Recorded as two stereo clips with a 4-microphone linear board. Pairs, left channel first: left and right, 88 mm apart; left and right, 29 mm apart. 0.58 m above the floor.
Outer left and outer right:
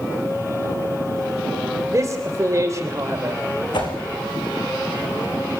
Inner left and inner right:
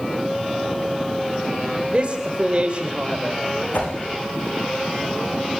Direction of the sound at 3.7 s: 55° left (ahead or behind).